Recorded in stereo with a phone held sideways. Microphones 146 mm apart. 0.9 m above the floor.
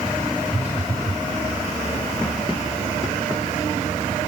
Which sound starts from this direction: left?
A phone buzzing, at 0.5 s.